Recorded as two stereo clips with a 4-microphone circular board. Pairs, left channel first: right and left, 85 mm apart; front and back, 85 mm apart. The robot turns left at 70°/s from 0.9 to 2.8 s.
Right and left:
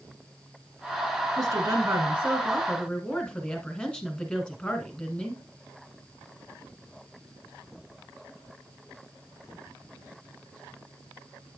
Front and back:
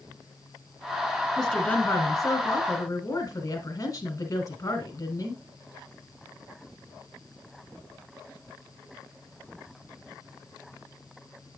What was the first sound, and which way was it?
A woman speaking, 85° left.